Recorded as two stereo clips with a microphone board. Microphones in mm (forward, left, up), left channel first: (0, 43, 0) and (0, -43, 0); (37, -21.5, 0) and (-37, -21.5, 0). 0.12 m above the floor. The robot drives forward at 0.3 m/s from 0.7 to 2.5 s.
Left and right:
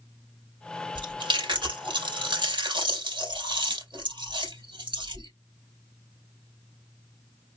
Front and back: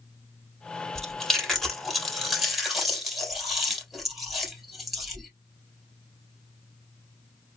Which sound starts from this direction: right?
Chewing, at 0.9 s.